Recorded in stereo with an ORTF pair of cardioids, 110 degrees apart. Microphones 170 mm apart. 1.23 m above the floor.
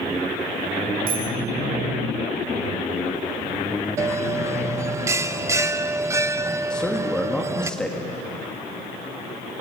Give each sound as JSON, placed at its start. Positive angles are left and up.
{"t": 1.1, "sound": "a bicycle bell", "azimuth_deg": -65, "distance_m": 4.0}
{"t": 4.0, "sound": "a bell", "azimuth_deg": -15, "distance_m": 0.8}
{"t": 6.7, "sound": "a man speaking", "azimuth_deg": 5, "distance_m": 2.5}